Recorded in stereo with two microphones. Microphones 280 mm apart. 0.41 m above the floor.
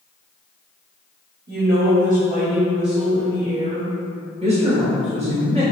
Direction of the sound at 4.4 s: 25° right (ahead or behind).